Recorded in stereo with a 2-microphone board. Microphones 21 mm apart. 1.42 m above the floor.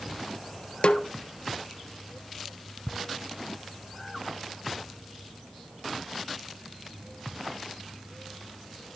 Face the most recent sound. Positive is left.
turn(degrees=25)  # may be behind; listen again after turning